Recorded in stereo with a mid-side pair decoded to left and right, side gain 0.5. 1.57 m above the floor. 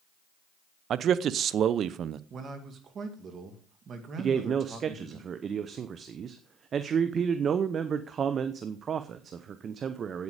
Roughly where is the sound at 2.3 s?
Ahead right.